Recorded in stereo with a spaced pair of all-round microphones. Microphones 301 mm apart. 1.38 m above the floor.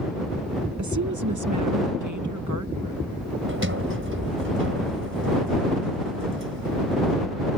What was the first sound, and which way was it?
A woman speaking, 65° right (ahead or behind).